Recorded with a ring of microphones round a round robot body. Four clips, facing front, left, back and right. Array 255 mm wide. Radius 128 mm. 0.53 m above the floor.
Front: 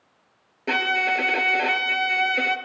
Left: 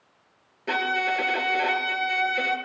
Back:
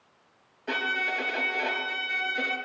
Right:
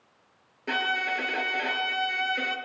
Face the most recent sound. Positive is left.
turn(degrees=0)